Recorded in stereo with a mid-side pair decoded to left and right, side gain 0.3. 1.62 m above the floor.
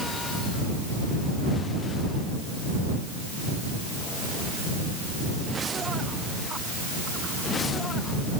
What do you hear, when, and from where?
Only background noise.